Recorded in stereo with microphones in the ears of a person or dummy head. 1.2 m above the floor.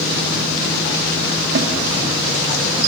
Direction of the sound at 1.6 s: 60° right (ahead or behind).